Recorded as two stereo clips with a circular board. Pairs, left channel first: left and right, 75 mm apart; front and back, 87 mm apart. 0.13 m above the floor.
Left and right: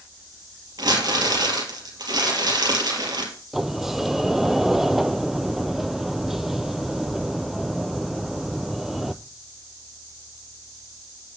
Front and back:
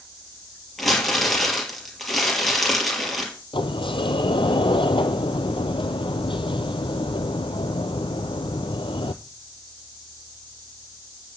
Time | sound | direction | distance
0.8 | crumpling | 90° right | 4 m
3.5 | a sliding door | 5° right | 0.8 m